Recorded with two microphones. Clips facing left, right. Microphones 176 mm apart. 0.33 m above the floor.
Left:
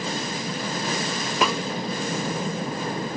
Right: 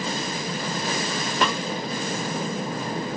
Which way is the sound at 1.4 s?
5° left (ahead or behind).